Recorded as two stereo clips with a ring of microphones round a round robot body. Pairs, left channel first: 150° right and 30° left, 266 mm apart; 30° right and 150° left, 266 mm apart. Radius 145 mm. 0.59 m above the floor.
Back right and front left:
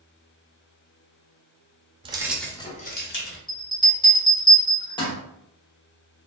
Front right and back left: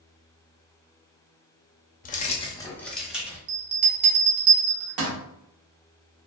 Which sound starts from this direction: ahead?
Keys jangling, at 2.0 s.